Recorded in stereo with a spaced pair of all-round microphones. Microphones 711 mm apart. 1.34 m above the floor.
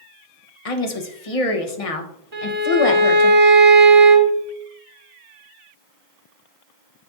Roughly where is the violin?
Right.